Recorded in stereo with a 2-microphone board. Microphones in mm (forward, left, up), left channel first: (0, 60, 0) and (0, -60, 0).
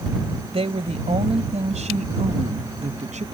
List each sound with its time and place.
0.5 s a woman speaking: 55° right (ahead or behind); by 3.2 s 75° right (ahead or behind)